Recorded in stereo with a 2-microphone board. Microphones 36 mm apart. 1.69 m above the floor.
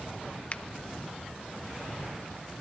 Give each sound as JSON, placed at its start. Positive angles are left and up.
{"t": 0.5, "sound": "a finger snap", "side_deg": 35, "distance_m": 0.9}